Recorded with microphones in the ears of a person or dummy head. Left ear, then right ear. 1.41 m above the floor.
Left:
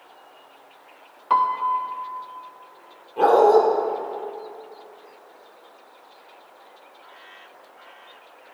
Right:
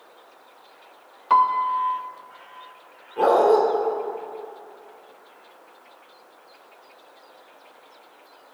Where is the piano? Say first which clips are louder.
Right 2 dB; 5° right (ahead or behind), 0.6 m.